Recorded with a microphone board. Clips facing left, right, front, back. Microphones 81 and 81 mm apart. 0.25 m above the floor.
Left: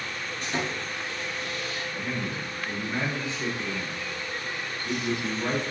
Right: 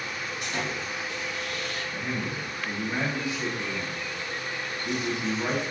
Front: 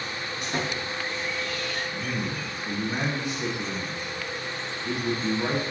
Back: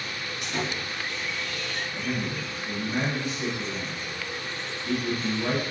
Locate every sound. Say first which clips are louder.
0.4 s sawing: left 2 dB, front 1 dB; 45° left, 1.7 m
1.9 s a man speaking: even, even; 30° right, 1.9 m